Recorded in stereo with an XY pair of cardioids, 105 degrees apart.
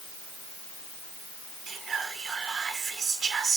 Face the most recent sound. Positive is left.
turn(degrees=-60)